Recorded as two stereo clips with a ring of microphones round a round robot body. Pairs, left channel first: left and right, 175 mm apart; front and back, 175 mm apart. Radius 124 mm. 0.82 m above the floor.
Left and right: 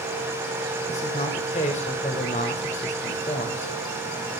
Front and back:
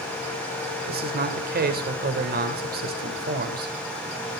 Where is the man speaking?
155° left, 3.5 m.